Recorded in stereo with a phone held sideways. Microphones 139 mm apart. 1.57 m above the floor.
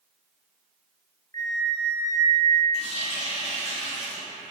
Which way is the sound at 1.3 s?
25° left (ahead or behind).